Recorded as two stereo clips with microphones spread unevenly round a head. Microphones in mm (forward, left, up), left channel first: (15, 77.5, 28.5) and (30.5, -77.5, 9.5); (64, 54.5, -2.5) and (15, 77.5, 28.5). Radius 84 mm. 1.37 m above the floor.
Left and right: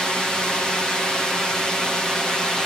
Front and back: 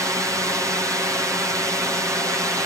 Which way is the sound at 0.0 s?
170° right.